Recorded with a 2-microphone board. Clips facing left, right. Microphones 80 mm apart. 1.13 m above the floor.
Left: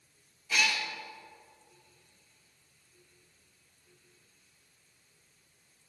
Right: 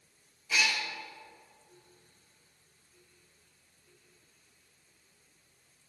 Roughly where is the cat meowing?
Centre.